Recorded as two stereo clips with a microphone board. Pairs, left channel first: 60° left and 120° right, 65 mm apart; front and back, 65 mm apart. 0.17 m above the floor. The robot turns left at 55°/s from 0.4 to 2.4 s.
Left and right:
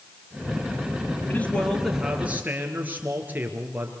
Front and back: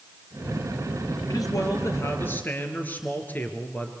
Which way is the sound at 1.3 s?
Straight ahead.